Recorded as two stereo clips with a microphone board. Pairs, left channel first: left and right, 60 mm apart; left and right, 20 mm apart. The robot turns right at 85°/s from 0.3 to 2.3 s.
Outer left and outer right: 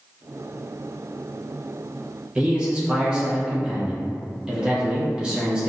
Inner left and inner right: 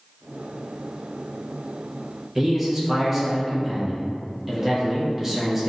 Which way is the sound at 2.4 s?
15° right (ahead or behind).